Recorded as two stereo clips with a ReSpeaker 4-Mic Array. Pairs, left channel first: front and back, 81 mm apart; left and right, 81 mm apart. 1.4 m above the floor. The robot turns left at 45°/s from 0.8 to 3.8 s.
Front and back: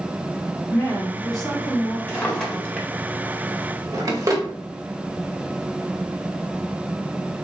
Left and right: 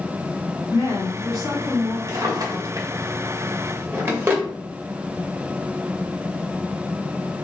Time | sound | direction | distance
0.7 | a woman speaking | 65° left | 1.0 m
2.1 | a drawer | 65° right | 1.2 m